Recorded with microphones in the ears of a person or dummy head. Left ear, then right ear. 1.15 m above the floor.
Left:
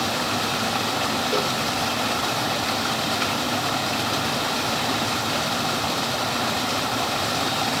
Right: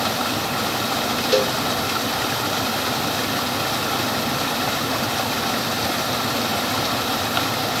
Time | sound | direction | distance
1.3 | a cowbell | 35° right (ahead or behind) | 3.5 m